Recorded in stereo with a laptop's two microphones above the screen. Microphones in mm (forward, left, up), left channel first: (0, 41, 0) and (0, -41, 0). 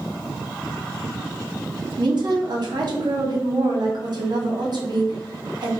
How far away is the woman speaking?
About 0.9 m.